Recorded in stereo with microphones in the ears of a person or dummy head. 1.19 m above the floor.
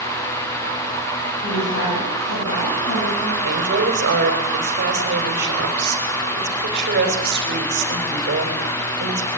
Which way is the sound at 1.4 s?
60° left (ahead or behind).